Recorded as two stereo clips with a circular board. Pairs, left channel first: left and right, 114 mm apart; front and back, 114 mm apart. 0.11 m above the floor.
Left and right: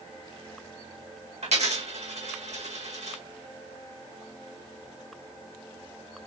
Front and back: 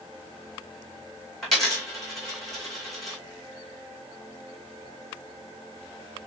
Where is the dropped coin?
90° right, 2 m.